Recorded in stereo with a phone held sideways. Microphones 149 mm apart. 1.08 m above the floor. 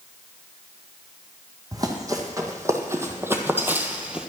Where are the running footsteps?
25° right (ahead or behind), 2 m; by 4.3 s 5° right (ahead or behind), 1.2 m.